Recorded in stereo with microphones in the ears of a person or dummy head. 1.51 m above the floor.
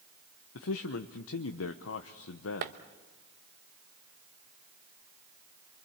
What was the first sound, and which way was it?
A man speaking, 80° left.